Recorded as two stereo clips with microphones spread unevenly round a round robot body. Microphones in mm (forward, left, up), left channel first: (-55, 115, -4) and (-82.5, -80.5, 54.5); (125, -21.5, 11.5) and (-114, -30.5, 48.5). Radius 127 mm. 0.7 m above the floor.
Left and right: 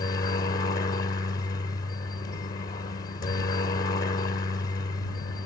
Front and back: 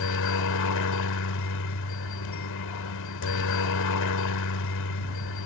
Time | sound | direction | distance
0.0 | a helicopter | 20° left | ?